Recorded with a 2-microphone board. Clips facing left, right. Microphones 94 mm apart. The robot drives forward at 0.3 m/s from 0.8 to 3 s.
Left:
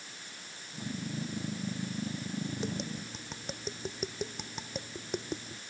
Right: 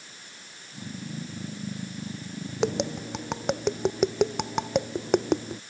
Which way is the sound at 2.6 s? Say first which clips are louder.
Right 10 dB; 70° right (ahead or behind).